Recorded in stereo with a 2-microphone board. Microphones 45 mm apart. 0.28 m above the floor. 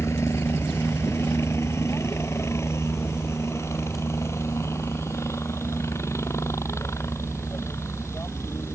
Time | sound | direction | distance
0.0 | a helicopter | 75° left (ahead or behind) | ?